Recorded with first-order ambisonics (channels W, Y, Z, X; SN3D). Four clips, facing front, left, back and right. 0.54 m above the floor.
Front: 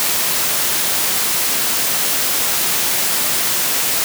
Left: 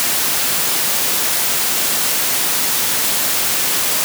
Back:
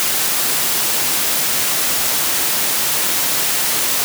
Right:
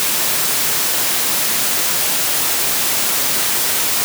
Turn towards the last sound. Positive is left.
No sound to turn to.